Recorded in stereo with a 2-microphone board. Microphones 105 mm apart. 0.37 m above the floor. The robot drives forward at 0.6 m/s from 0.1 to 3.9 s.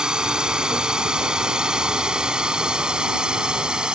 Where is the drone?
5° right (ahead or behind); by 4.0 s 10° right (ahead or behind).